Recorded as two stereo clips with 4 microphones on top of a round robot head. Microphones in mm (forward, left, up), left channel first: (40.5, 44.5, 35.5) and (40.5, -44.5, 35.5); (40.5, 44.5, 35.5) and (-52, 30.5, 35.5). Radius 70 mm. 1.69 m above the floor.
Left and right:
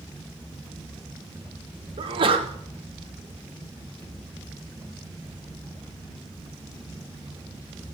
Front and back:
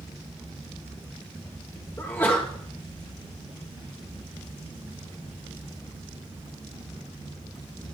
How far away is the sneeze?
About 1.5 m.